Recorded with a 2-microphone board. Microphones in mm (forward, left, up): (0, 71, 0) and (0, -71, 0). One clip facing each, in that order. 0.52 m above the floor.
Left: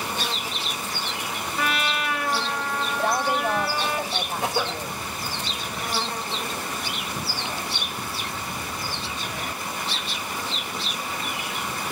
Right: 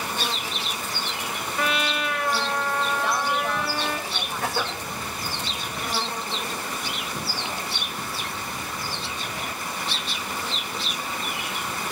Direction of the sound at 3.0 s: 50° left (ahead or behind).